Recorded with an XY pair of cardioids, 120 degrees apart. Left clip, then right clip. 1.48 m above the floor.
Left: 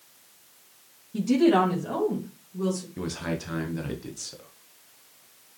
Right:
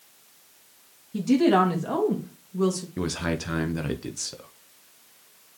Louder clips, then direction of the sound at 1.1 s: Right 1 dB; 15° right.